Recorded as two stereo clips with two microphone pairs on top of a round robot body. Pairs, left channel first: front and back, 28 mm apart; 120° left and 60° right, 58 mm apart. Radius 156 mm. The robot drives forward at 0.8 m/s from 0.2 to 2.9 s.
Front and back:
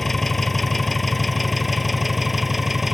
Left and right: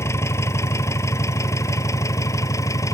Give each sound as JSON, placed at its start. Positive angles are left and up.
{"t": 0.0, "sound": "an engine running", "azimuth_deg": 85}